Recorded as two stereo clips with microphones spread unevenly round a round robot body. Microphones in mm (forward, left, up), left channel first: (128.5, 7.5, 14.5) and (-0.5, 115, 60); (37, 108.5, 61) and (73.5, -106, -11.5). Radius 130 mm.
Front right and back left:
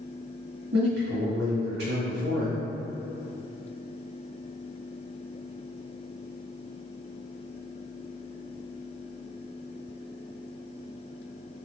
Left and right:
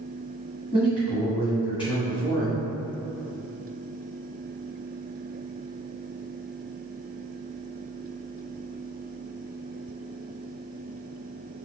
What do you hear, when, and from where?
0.7 s a man speaking: straight behind, 1.9 m